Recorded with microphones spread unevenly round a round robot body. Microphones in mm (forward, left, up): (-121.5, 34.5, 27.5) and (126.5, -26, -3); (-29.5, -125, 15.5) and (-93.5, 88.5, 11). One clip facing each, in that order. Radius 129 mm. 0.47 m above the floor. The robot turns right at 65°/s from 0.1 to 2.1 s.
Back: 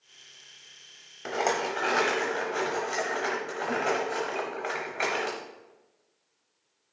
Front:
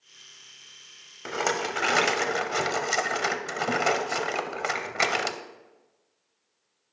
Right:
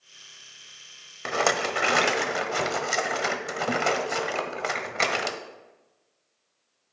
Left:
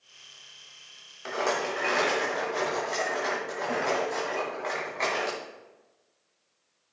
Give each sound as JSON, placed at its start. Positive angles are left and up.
{"t": 1.2, "sound": "a rattle", "azimuth_deg": -95, "distance_m": 0.9}